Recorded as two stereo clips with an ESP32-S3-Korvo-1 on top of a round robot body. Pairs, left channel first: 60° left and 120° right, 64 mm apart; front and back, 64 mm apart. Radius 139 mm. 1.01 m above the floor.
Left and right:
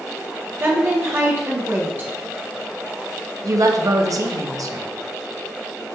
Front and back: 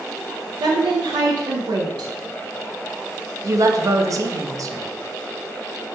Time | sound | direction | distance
0.6 | a woman speaking | straight behind | 0.6 m
3.4 | a woman speaking | 145° right | 0.7 m